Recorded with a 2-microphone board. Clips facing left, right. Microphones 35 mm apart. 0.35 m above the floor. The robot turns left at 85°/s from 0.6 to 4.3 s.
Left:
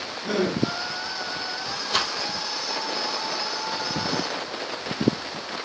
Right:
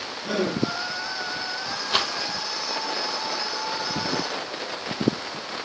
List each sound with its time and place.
0.2 s a gasp: 20° left (ahead or behind), 6.5 m
1.9 s a rattle: 30° right (ahead or behind), 1.4 m; by 2.1 s 15° right (ahead or behind), 1.4 m